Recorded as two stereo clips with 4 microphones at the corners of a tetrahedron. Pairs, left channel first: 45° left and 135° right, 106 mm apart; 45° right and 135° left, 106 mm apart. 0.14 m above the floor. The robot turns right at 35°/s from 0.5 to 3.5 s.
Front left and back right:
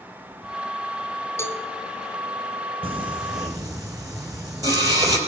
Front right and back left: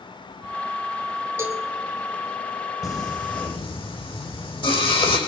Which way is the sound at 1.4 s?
85° left.